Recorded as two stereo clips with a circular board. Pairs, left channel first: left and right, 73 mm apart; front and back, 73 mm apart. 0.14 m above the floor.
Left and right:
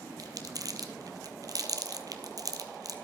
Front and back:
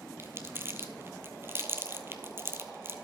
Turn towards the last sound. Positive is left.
turn(degrees=-125)